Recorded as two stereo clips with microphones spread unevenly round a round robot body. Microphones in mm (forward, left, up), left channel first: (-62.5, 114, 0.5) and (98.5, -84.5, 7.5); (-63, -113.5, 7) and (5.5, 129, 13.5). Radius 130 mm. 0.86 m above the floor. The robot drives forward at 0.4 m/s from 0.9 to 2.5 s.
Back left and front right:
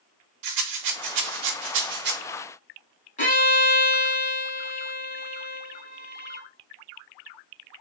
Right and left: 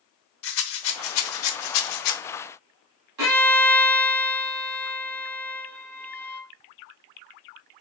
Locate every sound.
0.4 s a rattle: 65° right, 0.8 m; by 2.2 s 105° right, 0.8 m
3.2 s a violin: 65° left, 1.7 m